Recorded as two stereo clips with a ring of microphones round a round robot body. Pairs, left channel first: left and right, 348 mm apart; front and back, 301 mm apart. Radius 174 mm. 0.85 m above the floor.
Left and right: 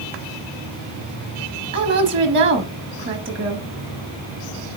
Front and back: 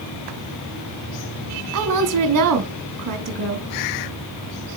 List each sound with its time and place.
1.7 s a woman speaking: 145° right, 1.1 m